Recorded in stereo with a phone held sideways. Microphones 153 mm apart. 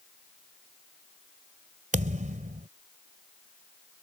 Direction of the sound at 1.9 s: 55° right (ahead or behind).